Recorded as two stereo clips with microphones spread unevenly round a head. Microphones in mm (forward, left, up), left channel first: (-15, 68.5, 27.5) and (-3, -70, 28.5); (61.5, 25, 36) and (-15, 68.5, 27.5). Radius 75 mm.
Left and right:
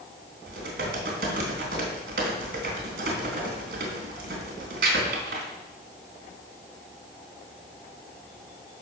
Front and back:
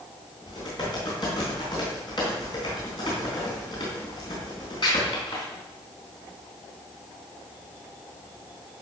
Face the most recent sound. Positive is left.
turn(degrees=-85)